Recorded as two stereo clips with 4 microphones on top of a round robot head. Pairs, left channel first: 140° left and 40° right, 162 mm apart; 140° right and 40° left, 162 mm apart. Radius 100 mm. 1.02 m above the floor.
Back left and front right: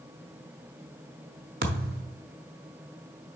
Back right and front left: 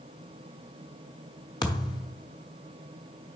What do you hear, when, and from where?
1.6 s a thud: 75° right, 0.8 m